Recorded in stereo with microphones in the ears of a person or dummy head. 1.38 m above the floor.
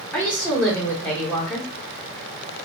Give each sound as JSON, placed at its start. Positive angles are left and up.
{"t": 0.1, "sound": "a woman speaking", "side_deg": 5, "distance_m": 1.1}